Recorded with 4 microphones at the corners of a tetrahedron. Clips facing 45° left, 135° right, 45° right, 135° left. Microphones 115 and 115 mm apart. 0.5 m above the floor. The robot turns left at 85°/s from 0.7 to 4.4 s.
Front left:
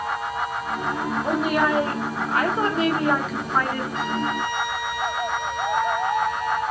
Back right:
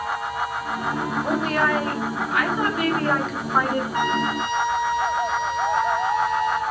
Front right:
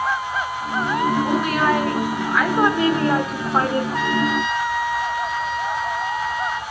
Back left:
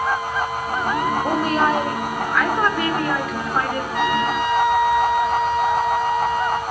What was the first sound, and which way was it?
A woman speaking, 135° left.